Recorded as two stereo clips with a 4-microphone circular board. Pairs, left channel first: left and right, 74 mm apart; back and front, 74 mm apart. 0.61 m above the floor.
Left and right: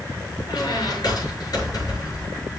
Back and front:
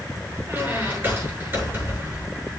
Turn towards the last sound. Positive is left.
turn(degrees=60)